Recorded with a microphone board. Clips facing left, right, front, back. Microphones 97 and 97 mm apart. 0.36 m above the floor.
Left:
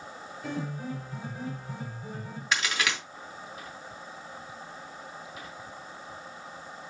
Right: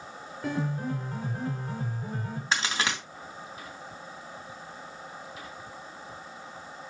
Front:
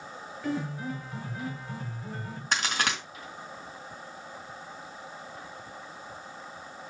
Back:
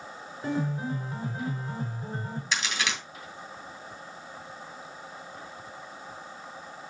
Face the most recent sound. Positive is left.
turn(degrees=-35)